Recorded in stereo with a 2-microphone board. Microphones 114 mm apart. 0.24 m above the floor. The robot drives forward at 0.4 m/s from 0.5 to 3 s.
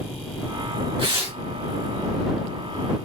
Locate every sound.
1.0 s tearing paper: 50° right (ahead or behind), 2.0 m